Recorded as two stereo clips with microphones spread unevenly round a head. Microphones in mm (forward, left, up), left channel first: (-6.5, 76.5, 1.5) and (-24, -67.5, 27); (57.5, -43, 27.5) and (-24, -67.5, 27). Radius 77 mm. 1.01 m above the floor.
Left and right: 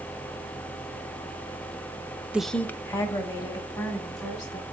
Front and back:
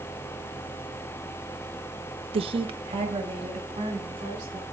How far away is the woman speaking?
About 0.5 m.